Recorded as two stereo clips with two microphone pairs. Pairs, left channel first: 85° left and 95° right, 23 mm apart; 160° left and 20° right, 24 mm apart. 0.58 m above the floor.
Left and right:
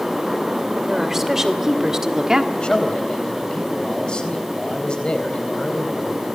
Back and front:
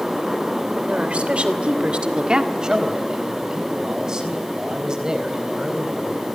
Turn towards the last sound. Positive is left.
turn(degrees=40)